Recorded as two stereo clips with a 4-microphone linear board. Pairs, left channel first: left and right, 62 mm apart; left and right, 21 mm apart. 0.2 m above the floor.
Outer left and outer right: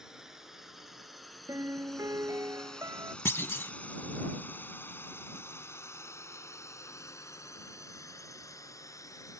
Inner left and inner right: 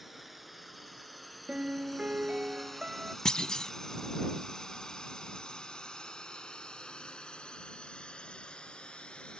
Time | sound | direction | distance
0.0 | a drone | 10° right (ahead or behind) | ?
1.5 | a piano | 65° right (ahead or behind) | ?
3.2 | a clunk | 40° left (ahead or behind) | ?